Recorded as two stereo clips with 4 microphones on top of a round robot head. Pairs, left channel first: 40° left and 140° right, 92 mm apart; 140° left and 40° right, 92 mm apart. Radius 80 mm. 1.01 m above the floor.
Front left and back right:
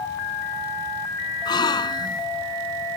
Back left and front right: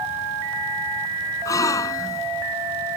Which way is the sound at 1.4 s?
85° left.